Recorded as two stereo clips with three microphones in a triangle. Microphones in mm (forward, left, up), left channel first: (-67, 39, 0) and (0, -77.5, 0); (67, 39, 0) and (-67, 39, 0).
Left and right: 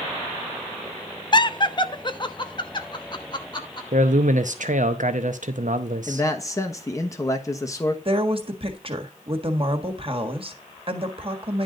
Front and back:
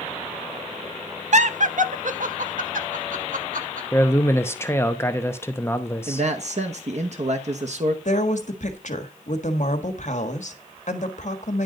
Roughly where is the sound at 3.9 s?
Right.